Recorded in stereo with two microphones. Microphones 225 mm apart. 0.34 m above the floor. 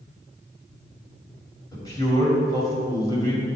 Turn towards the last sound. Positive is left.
turn(degrees=15)  # may be behind; listen again after turning